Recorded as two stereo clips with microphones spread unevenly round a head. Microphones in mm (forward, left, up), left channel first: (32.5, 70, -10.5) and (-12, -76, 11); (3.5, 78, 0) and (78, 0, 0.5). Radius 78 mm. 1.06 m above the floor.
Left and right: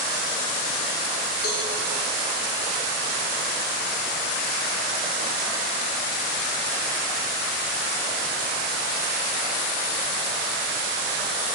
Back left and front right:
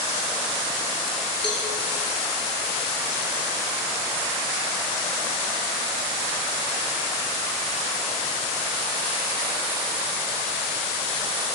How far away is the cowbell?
About 2.5 m.